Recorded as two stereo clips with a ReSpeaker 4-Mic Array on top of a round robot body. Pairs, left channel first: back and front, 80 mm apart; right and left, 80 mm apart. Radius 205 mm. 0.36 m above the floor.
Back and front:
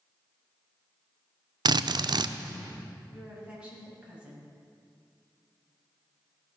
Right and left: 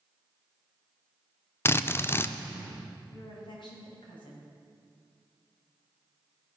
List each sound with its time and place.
1.6 s a drill: 30° right, 0.5 m
3.1 s a woman speaking: 75° right, 3.5 m